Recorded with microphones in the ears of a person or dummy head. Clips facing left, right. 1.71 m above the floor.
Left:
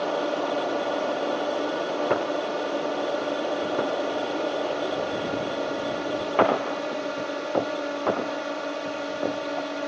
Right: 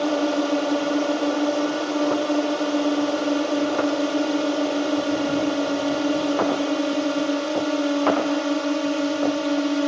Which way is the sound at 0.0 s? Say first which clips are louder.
Right 5 dB; 50° right (ahead or behind).